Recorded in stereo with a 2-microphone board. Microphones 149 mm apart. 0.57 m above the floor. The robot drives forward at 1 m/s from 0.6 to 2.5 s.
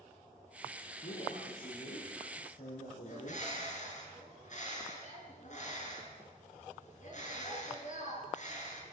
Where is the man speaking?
75° left (ahead or behind), 6.5 m; by 3.4 s 85° left, 6.5 m.